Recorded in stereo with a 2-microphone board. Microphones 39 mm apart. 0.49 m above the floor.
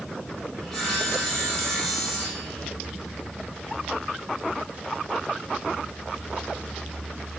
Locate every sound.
0.6 s sawing: 15° left (ahead or behind), 10 m